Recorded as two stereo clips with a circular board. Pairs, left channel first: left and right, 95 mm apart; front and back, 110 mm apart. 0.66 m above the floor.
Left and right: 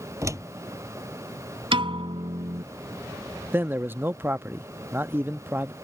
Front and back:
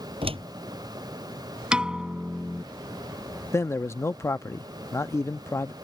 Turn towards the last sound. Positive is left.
turn(degrees=-45)